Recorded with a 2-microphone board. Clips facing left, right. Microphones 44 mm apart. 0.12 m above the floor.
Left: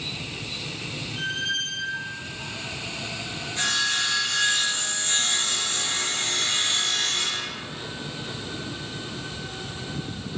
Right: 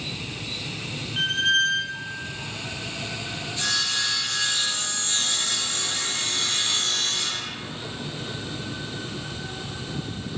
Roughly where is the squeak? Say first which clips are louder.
Right 7 dB; right.